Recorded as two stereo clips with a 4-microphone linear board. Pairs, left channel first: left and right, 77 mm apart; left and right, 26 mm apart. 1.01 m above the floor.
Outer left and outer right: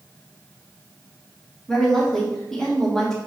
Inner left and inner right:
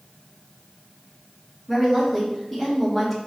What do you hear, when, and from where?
1.7 s a woman speaking: 5° left (ahead or behind), 2 m